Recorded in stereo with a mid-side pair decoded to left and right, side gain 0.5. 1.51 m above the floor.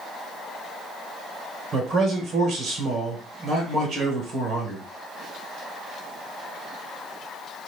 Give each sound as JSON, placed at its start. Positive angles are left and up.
{"t": 1.7, "sound": "a man speaking", "azimuth_deg": -65, "distance_m": 1.8}